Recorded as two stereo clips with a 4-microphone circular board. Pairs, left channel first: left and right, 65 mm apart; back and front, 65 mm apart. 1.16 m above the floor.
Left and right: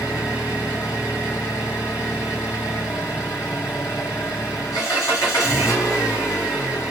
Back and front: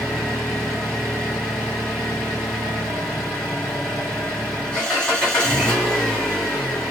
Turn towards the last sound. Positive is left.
turn(degrees=105)